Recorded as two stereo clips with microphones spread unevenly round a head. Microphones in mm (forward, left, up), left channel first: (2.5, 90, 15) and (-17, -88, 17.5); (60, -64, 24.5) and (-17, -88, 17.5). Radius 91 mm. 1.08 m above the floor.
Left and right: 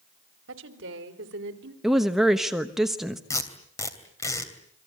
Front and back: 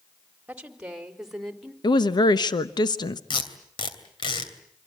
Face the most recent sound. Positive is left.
turn(degrees=10)